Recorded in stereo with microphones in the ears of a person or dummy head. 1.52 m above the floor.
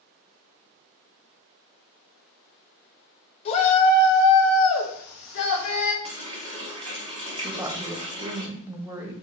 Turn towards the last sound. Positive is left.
turn(degrees=-15)  # may be behind; listen again after turning